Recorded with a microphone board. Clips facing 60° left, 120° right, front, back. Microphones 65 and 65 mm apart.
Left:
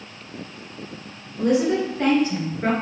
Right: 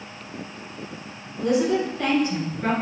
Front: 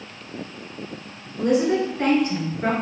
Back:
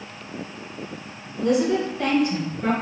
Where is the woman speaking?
25° left, 1.9 m; by 2.7 s 5° left, 2.5 m.